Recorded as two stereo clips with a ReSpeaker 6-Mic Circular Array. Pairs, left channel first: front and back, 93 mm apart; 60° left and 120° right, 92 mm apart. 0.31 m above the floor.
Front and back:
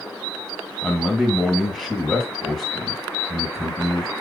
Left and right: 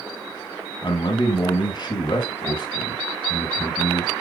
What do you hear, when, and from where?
0.8 s a man speaking: 90° left, 2.0 m